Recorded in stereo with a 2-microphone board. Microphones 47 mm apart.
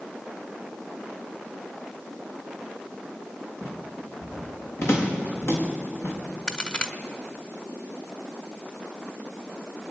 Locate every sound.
3.6 s footsteps: 65° left (ahead or behind), 7 m; by 6.2 s 70° left (ahead or behind), 5 m
6.5 s a crack: 25° left (ahead or behind), 1.4 m